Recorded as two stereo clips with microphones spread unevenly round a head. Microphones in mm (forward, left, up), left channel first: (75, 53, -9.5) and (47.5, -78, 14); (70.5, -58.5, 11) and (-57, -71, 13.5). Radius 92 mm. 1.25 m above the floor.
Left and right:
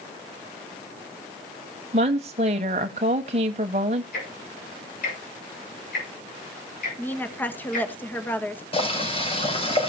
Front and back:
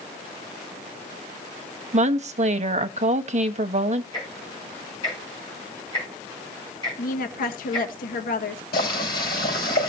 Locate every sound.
1.9 s a woman speaking: 155° right, 1.0 m
4.1 s ticking: 75° left, 6.5 m
7.0 s a woman speaking: 5° left, 1.5 m
8.7 s boiling: 35° left, 5.5 m